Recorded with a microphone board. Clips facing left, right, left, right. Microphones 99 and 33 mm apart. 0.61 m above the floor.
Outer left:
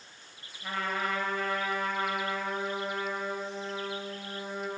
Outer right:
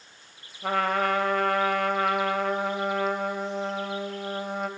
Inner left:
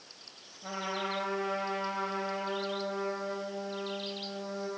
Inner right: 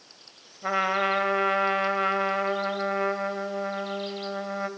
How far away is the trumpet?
About 1.5 m.